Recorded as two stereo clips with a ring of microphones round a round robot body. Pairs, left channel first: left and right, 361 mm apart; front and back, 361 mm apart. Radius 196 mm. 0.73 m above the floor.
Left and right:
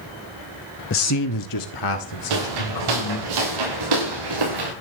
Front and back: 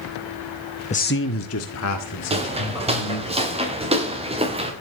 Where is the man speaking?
60° left, 0.5 m; by 3.3 s 50° left, 3.5 m.